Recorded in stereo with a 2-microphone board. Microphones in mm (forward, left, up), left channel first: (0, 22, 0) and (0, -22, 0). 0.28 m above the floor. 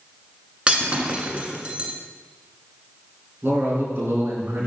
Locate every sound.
0.7 s breaking glass: 25° right (ahead or behind), 1.4 m
3.4 s a man speaking: 55° right (ahead or behind), 3.5 m